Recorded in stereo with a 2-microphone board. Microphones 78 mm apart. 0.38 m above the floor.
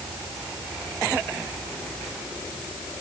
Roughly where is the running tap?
I don't hear a running tap.